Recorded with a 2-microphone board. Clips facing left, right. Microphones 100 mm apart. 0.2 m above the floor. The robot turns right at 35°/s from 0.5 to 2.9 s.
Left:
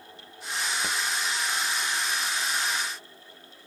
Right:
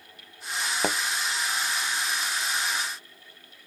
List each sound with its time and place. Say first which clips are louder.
0.8 s a thud: right 5 dB; 65° right (ahead or behind); by 1.0 s 60° right (ahead or behind)